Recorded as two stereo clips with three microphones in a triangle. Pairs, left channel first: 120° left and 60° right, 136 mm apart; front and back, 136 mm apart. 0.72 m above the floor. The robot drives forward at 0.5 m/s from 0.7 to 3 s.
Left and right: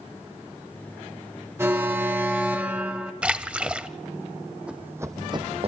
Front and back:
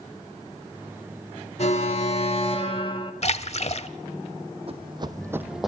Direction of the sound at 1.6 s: 10° left.